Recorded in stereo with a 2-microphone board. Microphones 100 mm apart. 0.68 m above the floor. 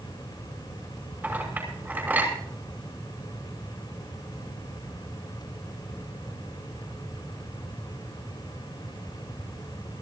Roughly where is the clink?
Right.